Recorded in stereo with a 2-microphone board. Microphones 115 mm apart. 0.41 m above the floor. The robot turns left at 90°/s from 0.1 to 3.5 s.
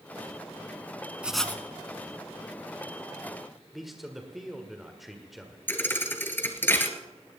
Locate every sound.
1.2 s writing: 170° right, 1.3 m; by 1.6 s 155° left, 1.3 m
3.7 s a man speaking: centre (ahead or behind), 1.7 m
5.7 s a thud: 15° left (ahead or behind), 1.6 m